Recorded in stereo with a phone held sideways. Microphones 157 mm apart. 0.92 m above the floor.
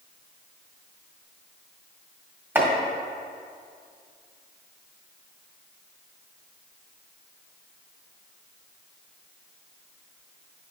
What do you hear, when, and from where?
2.5 s chopping: 15° right (ahead or behind), 1.7 m